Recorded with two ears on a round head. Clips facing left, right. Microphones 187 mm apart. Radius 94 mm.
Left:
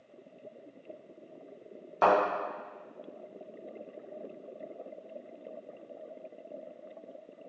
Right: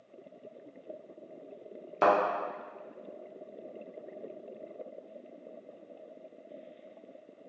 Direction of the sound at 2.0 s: 30° right (ahead or behind).